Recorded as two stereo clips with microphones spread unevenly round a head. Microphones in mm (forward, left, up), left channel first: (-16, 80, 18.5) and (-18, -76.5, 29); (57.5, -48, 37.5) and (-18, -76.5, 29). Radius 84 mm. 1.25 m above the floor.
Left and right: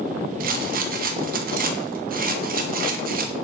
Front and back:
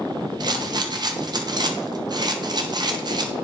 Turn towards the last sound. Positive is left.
turn(degrees=-125)